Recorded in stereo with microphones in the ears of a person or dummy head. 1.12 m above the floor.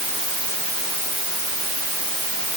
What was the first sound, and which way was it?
Only background noise.